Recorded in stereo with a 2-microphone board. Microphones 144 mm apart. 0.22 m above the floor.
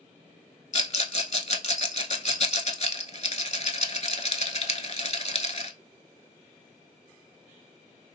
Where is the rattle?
50° left (ahead or behind), 0.6 m.